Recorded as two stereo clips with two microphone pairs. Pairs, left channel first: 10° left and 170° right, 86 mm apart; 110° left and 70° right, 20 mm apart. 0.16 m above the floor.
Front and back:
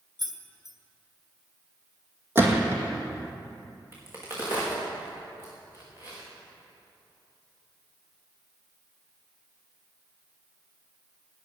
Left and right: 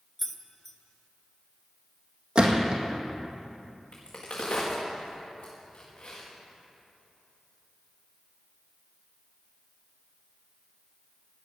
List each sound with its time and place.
0.2 s keys jangling: 175° right, 1.3 m
2.4 s a gunshot: 105° right, 2 m
3.9 s a crack: 130° left, 5 m